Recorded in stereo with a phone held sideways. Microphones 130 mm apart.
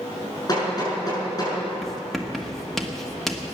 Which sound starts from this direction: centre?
Writing, at 1.8 s.